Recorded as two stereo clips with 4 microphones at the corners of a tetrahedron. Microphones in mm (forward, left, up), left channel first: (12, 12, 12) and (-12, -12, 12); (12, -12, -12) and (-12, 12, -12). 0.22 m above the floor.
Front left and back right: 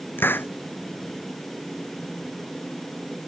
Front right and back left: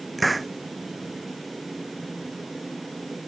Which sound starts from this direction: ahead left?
A hiss, at 0.2 s.